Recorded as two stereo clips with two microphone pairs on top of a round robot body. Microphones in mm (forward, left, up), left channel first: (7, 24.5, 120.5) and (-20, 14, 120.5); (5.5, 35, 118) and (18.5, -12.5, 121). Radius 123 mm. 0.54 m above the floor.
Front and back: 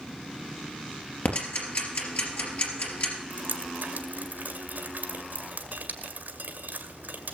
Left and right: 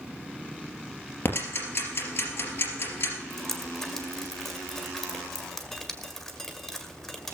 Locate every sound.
1.2 s ticking: 60° left, 3.5 m
3.3 s dripping: 170° right, 1.9 m